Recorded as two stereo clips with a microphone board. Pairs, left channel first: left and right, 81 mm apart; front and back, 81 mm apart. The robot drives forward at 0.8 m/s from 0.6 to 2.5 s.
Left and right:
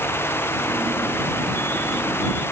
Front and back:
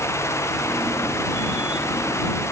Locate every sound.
Only background noise.